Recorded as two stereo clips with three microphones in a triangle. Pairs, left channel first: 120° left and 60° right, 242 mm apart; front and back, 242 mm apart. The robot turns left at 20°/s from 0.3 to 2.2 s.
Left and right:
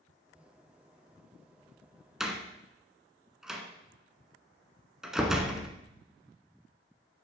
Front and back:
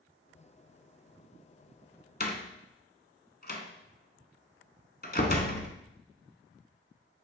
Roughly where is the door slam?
Ahead left.